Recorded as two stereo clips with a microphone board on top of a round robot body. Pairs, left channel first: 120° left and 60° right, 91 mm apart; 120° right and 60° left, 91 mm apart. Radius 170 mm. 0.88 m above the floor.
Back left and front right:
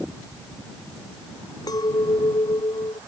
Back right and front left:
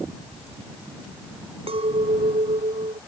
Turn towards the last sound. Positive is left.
turn(degrees=75)